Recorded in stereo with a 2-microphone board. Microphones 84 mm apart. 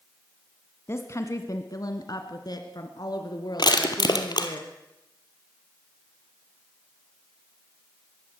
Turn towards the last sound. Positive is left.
turn(degrees=60)  # may be behind; listen again after turning